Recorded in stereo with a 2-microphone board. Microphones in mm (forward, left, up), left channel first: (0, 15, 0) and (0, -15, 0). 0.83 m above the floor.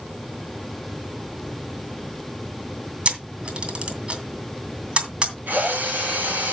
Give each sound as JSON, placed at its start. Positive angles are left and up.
{"t": 3.0, "sound": "a camera shutter", "side_deg": -35, "distance_m": 2.5}
{"t": 5.5, "sound": "a drill", "side_deg": -70, "distance_m": 4.0}